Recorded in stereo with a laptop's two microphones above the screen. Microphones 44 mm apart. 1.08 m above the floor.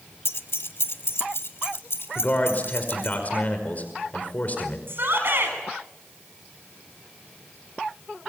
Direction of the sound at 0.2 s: 75° left (ahead or behind).